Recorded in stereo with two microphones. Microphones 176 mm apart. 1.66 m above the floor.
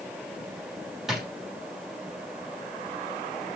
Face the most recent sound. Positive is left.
turn(degrees=0)  # may be behind; listen again after turning